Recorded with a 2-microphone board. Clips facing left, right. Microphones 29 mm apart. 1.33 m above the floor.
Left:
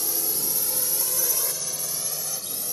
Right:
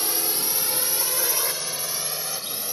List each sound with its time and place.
0.0 s a drone: 50° right (ahead or behind); by 2.8 s 35° right (ahead or behind)